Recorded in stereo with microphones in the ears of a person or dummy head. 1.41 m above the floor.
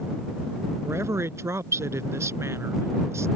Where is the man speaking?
10° right (ahead or behind).